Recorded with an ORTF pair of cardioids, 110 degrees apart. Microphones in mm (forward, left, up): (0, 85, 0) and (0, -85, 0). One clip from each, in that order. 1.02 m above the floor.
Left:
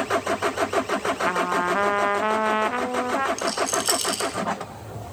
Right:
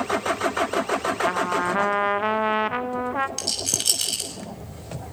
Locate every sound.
1.2 s a trumpet: 5° left, 0.7 m
3.4 s a rattle: 20° right, 6.5 m